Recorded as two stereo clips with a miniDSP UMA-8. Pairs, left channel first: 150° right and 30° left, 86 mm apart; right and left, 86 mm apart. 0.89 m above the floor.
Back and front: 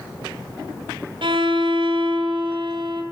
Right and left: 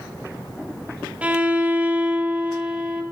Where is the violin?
15° left, 1.5 m.